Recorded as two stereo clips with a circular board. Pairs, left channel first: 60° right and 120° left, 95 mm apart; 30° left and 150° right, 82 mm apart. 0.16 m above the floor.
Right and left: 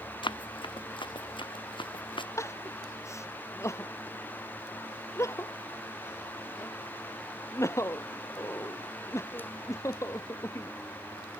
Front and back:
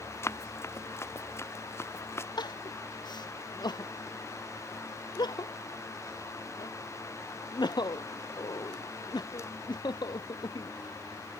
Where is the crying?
Straight ahead.